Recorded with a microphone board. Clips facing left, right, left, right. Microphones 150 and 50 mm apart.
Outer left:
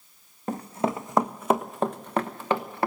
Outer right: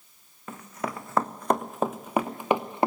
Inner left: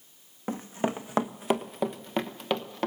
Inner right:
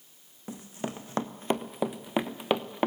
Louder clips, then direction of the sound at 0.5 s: Outer left 7 dB, inner left 7 dB; 40° left (ahead or behind).